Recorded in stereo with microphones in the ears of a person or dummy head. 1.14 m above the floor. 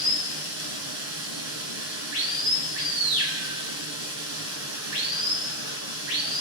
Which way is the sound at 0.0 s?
80° right.